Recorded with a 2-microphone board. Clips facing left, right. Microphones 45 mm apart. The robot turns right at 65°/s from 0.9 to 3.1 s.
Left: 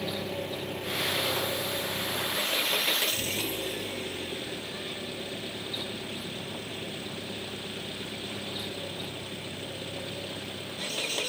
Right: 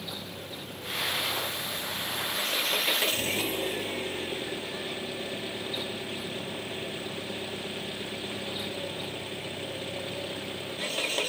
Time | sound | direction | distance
0.0 | an engine running | 55° left | ?